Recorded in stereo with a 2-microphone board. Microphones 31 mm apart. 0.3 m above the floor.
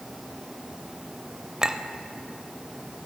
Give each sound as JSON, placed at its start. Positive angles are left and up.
{"t": 1.6, "sound": "a clink", "side_deg": -20, "distance_m": 0.7}